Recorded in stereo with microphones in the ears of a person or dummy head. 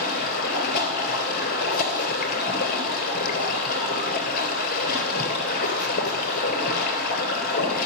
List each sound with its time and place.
0.0 s running water: 50° left (ahead or behind), 3 m